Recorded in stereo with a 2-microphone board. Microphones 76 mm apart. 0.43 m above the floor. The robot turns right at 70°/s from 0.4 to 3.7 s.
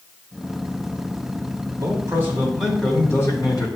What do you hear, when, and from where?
1.8 s a man speaking: 60° right, 3 m; by 3.7 s 70° left, 3 m